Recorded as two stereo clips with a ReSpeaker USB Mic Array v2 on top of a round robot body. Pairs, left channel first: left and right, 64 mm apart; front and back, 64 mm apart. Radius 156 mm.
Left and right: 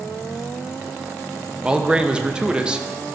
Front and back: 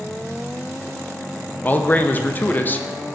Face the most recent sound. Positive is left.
turn(degrees=-30)